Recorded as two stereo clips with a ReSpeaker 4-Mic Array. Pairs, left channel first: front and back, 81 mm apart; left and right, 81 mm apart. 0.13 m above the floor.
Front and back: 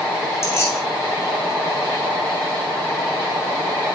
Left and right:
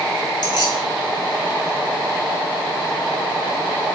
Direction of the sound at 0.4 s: 55° left.